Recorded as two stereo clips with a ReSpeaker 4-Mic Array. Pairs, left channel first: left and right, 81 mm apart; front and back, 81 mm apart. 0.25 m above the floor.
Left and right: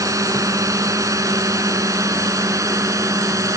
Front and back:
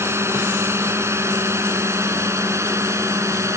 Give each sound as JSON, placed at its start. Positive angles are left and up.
{"t": 0.0, "sound": "a drone", "azimuth_deg": -130}